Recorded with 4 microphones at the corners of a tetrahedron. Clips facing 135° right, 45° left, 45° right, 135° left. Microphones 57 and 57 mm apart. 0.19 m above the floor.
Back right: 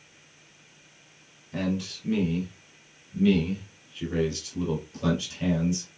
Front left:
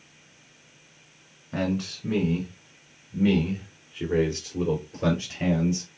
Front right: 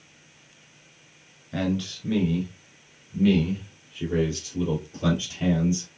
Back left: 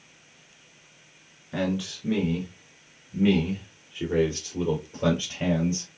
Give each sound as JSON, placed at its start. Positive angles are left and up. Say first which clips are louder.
{"t": 1.5, "sound": "a man speaking", "louder": "front left 2 dB, front right 1 dB", "azimuth_deg": 55, "distance_m": 2.5}